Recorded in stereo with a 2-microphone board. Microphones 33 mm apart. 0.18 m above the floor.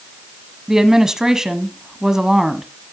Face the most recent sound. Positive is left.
turn(degrees=-20)  # may be behind; listen again after turning